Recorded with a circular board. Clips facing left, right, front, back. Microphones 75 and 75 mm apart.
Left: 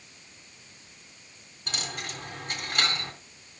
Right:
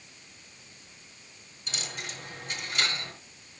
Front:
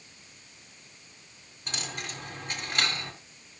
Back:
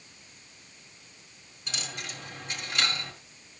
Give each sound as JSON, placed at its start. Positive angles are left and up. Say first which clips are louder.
{"t": 1.7, "sound": "a dropped coin", "louder": "left 3 dB, front 2 dB", "azimuth_deg": 50, "distance_m": 2.5}